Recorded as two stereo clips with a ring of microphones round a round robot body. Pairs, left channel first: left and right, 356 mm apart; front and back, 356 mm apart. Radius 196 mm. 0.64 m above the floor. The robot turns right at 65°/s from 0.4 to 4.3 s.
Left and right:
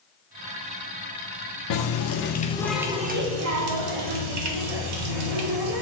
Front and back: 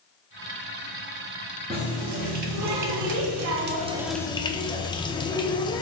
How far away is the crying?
I don't hear crying.